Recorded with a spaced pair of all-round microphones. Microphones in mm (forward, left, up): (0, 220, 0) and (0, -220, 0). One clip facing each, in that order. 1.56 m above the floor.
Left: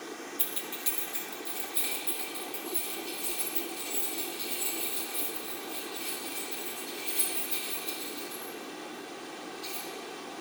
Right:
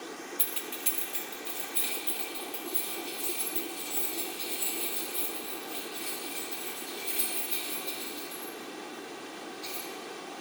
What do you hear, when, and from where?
0.4 s keys jangling: 40° right (ahead or behind), 0.7 m; by 9.8 s 50° right (ahead or behind), 9 m